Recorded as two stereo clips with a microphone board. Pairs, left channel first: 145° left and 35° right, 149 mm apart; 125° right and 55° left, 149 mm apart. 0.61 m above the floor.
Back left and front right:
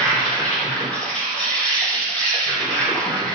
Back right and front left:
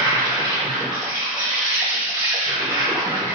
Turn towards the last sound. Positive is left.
turn(degrees=70)